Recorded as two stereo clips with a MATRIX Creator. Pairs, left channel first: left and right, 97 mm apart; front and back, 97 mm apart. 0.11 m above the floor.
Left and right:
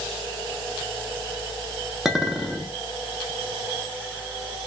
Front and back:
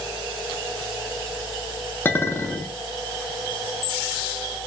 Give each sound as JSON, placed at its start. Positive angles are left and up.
{"t": 2.0, "sound": "a clink", "azimuth_deg": -5, "distance_m": 0.6}